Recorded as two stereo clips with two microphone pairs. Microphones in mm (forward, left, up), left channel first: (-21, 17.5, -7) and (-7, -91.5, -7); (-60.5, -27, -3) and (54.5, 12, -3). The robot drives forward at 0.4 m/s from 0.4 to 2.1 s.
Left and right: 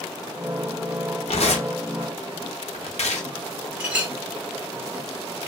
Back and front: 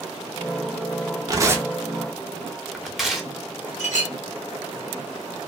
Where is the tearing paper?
75° left, 0.6 m; by 3.3 s 105° left, 0.6 m.